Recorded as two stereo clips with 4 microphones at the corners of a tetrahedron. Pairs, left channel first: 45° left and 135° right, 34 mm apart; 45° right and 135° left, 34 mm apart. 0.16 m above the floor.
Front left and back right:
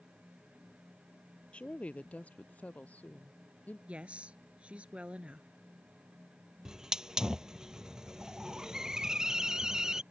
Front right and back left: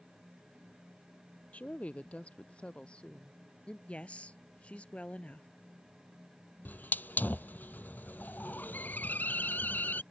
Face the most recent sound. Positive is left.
turn(degrees=-65)